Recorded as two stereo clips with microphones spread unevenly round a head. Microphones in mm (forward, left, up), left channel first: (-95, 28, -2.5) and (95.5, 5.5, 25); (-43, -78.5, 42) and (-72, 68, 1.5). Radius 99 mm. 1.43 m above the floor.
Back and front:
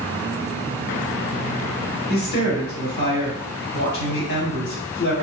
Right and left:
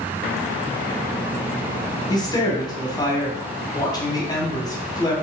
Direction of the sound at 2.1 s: 145° right.